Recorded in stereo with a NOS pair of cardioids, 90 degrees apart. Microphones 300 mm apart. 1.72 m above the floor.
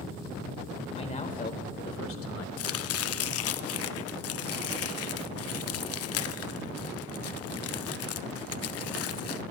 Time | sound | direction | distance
1.0 | a man speaking | 20° left | 2 m
2.6 | chopping | 50° left | 0.5 m